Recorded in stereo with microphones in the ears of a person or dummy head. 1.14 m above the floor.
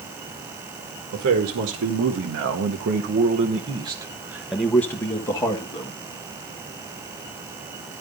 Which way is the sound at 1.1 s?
75° right (ahead or behind).